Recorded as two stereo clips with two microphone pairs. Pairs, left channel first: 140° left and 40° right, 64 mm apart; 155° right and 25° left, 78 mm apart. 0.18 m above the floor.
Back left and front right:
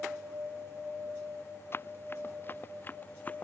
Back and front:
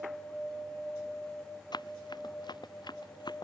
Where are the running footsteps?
170° right; by 3.5 s 155° right.